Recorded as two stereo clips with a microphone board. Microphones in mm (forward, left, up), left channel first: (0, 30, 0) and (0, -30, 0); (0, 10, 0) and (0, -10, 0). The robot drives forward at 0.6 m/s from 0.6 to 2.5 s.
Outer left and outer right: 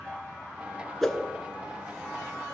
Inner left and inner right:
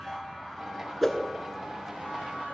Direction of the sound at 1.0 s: 5° left (ahead or behind).